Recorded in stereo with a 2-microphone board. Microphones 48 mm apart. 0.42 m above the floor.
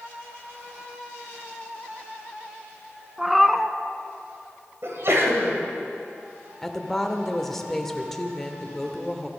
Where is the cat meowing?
5° right (ahead or behind), 0.5 m.